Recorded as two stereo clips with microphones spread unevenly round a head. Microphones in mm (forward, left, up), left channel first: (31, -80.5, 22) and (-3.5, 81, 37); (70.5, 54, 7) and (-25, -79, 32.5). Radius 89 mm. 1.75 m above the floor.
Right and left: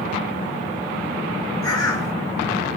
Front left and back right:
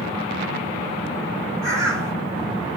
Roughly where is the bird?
Behind right.